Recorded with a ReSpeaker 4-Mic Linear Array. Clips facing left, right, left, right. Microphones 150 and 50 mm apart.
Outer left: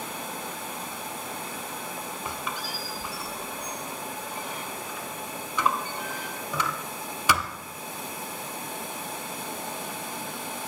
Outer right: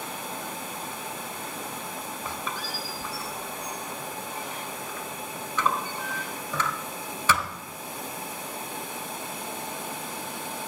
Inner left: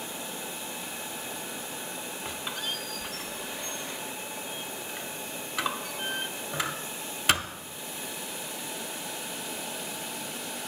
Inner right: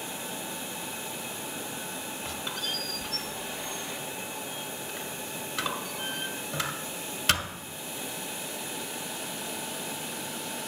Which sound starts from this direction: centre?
A squeak, at 2.2 s.